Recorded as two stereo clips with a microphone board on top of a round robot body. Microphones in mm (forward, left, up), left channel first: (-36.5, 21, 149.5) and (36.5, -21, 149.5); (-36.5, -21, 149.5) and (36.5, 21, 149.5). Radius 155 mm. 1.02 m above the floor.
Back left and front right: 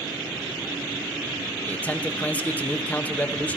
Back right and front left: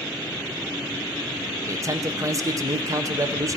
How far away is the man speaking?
About 0.9 m.